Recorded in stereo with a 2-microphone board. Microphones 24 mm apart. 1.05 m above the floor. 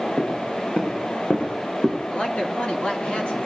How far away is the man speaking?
About 3 m.